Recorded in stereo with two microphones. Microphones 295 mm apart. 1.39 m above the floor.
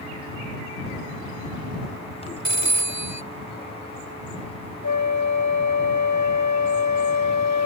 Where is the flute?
75° left (ahead or behind).